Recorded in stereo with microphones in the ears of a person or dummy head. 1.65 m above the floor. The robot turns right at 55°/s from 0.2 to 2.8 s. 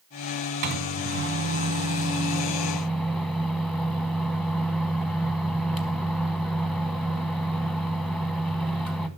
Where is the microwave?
120° right, 0.9 m; by 9.1 s 5° right, 0.9 m.